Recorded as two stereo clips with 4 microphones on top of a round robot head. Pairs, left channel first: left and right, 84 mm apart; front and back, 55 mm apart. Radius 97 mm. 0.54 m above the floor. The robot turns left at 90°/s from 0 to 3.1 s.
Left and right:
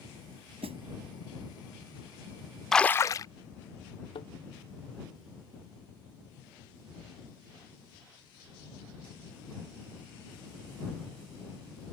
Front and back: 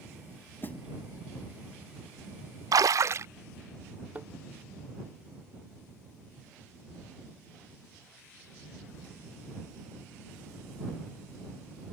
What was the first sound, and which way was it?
A snare drum, 70° right.